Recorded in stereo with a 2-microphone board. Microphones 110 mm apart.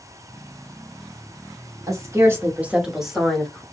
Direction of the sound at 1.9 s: 30° right (ahead or behind).